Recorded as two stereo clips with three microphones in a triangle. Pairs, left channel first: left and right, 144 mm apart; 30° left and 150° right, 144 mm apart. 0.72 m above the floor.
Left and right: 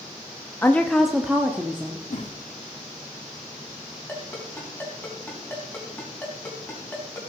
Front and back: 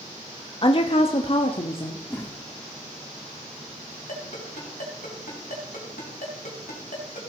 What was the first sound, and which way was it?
A woman speaking, 25° left.